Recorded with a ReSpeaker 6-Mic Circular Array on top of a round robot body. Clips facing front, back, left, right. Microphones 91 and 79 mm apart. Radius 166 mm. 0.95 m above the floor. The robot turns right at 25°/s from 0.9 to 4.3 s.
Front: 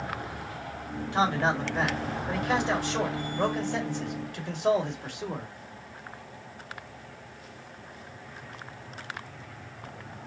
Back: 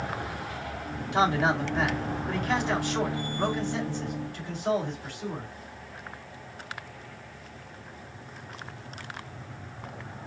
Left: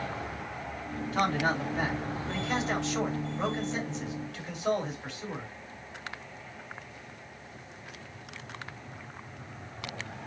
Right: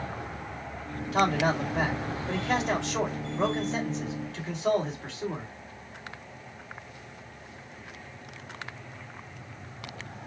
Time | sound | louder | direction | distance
1.1 | a man speaking | back 2 dB, right 3 dB | 110° right | 2 m